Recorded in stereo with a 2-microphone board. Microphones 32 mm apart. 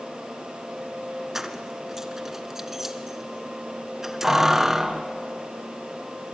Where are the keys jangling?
10° right (ahead or behind), 1.4 m.